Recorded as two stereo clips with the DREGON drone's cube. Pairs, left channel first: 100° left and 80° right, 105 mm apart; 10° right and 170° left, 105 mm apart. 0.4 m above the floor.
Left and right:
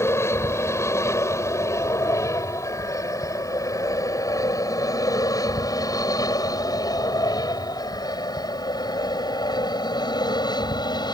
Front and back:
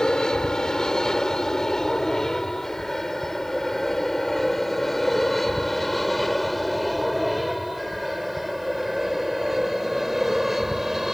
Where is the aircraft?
65° left; by 11.2 s 85° left.